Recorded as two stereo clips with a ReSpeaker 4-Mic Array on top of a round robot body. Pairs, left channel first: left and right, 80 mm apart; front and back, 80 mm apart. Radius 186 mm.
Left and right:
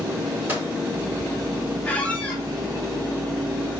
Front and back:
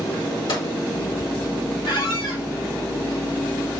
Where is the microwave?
25° right, 5.5 m.